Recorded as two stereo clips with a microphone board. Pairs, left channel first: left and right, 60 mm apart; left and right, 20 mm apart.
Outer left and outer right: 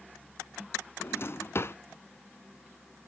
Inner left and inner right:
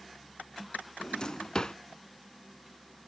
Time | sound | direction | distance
1.0 | a drawer | 45° left (ahead or behind) | 0.6 m